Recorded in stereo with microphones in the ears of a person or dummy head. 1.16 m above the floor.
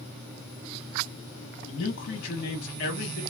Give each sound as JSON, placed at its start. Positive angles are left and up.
{"t": 1.7, "sound": "a man speaking", "side_deg": 55, "distance_m": 1.2}